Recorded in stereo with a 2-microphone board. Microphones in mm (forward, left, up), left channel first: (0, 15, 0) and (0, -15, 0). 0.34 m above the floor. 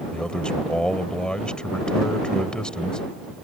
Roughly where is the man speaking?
Left.